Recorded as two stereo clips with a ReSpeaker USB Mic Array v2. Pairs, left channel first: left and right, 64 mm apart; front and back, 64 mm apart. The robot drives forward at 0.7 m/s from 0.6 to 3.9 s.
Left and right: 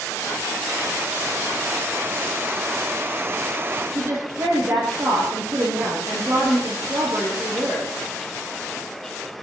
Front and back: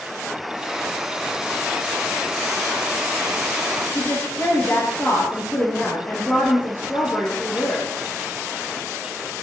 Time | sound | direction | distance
3.9 | a woman speaking | 50° right | 6.5 m